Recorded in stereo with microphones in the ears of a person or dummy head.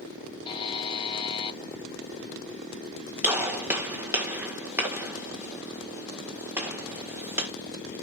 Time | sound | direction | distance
0.5 | a buzzer | 30° left (ahead or behind) | 0.7 m
3.2 | a gunshot | 15° right (ahead or behind) | 1.5 m